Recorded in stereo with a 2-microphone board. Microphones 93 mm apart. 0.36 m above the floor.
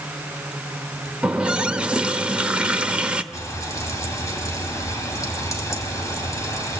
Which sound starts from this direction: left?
Frying, at 3.3 s.